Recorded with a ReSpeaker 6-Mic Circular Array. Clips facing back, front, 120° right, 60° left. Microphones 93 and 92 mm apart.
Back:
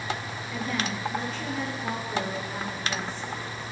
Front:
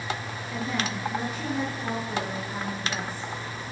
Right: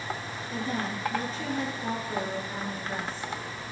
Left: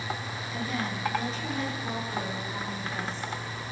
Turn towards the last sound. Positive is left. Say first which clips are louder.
# front 1 dB, right 1 dB
turn(degrees=-75)